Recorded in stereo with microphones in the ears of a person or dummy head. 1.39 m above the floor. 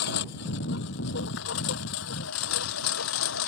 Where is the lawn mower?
65° left (ahead or behind); by 3.5 s 85° left.